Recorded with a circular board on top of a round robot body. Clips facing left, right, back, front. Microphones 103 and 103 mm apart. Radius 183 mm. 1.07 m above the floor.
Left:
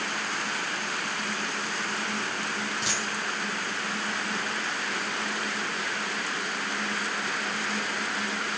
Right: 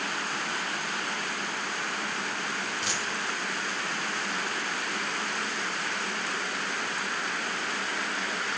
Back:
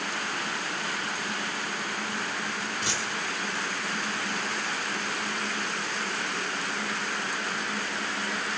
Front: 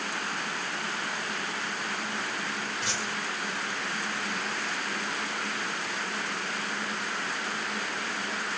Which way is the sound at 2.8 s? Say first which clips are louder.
Left 1 dB, back 1 dB; 105° left.